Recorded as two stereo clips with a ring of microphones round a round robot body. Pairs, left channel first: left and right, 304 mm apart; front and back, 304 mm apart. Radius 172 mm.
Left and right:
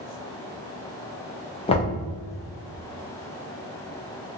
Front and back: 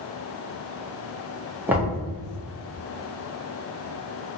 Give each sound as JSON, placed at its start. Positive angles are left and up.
{"t": 1.7, "sound": "knocking", "azimuth_deg": 110, "distance_m": 0.7}